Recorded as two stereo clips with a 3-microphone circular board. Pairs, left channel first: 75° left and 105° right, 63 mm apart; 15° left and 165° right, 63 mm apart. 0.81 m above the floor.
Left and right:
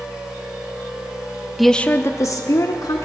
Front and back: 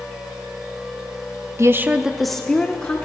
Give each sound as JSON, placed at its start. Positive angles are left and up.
{"t": 1.6, "sound": "a woman speaking", "azimuth_deg": 170, "distance_m": 0.7}